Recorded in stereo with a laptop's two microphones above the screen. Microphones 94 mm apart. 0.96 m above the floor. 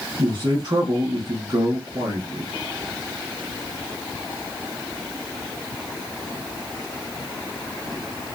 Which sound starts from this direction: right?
A man speaking, at 0.2 s.